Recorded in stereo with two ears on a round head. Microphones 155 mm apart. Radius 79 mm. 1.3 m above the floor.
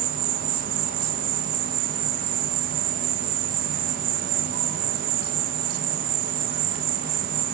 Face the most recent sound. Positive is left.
turn(degrees=-50)  # may be behind; listen again after turning